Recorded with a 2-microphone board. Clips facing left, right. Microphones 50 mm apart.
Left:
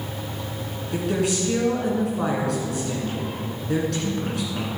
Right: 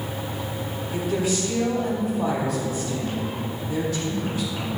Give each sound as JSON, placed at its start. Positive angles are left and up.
{"t": 0.9, "sound": "a woman speaking", "side_deg": 70, "distance_m": 3.5}